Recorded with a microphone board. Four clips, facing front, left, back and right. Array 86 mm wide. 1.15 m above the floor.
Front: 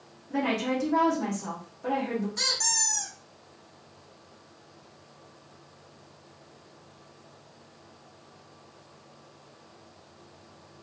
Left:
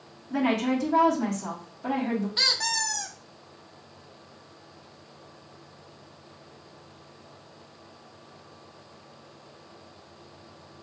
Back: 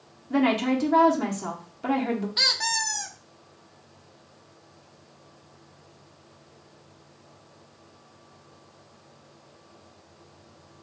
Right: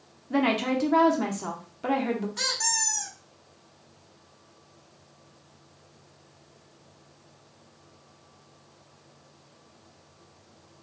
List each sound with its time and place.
0.3 s a woman speaking: 130° right, 0.8 m
2.4 s a squeak: 150° left, 0.6 m